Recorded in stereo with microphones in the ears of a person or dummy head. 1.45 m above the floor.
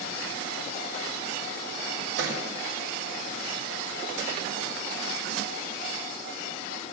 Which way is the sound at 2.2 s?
70° right (ahead or behind).